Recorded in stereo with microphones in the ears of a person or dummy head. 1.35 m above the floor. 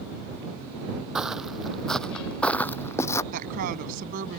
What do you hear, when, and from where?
1.1 s footsteps: 5° right (ahead or behind); by 3.2 s 15° left (ahead or behind)
3.3 s a woman speaking: 50° right (ahead or behind)